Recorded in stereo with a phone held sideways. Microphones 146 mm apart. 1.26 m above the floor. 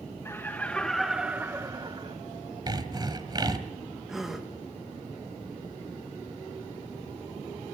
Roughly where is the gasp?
Centre.